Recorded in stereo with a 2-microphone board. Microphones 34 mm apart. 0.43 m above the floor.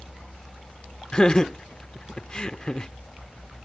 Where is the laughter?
25° left (ahead or behind).